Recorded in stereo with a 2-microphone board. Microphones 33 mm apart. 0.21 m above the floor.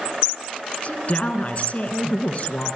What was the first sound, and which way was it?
A woman speaking, 40° left (ahead or behind).